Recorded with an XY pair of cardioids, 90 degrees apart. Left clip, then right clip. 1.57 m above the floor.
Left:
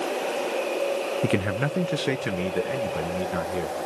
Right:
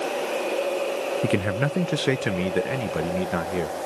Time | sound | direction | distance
1.2 | a man speaking | 10° left | 0.6 m